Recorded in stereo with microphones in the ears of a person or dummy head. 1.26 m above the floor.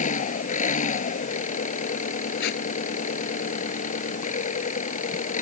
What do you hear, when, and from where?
0.0 s an engine running: 40° left (ahead or behind)
2.4 s tape being pulled: 60° left (ahead or behind)